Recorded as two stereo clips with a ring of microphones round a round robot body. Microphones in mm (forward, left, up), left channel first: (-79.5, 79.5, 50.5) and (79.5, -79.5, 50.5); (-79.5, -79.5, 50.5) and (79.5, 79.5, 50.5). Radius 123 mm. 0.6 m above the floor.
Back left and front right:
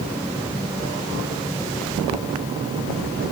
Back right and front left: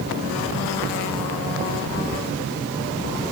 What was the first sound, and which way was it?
Only background noise.